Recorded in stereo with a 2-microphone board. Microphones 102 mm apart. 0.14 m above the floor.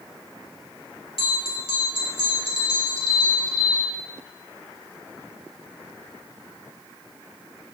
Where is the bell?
65° left (ahead or behind), 1.5 m.